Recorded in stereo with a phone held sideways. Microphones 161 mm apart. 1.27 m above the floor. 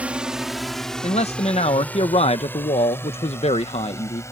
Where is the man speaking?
40° left (ahead or behind).